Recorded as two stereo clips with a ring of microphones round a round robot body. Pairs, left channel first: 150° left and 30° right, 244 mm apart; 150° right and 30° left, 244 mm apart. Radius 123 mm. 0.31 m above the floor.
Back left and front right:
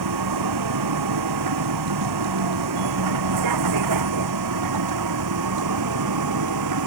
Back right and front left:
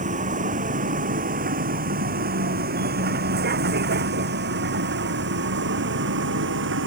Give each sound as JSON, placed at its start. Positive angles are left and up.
{"t": 0.0, "sound": "a vehicle", "azimuth_deg": -30}